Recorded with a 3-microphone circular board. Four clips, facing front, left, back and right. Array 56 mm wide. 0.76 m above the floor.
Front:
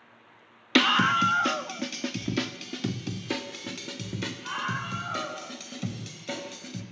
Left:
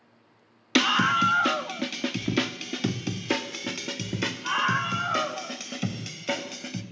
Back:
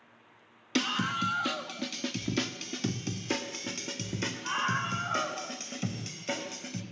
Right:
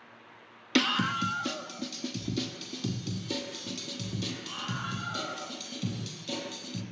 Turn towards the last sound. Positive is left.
turn(degrees=95)